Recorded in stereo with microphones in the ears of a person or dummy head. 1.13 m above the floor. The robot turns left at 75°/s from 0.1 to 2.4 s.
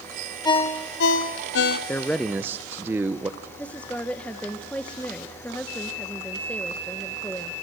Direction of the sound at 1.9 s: 20° left.